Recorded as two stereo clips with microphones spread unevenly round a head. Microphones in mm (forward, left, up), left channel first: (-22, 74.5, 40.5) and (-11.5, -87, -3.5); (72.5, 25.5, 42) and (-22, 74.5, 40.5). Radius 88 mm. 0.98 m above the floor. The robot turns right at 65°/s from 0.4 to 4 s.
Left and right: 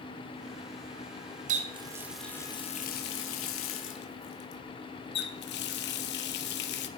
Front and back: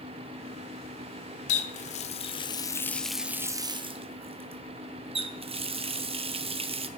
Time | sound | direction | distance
1.5 | a running tap | 45° right | 0.7 m